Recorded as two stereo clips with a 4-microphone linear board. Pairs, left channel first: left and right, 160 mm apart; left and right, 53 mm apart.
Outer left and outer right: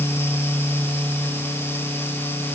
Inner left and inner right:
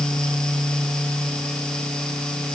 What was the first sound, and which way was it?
Only background noise.